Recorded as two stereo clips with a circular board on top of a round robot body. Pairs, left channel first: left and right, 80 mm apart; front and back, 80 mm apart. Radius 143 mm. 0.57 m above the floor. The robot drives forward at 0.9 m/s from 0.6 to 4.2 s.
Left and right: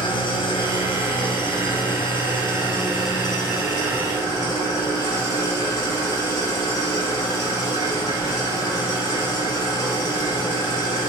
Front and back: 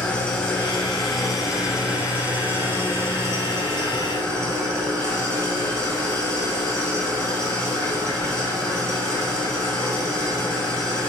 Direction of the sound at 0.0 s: 80° left.